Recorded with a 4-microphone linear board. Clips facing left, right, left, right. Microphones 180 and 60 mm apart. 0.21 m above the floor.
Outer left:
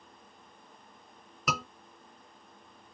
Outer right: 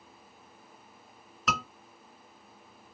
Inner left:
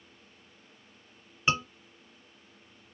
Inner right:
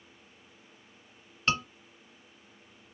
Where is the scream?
10° left (ahead or behind), 3 m.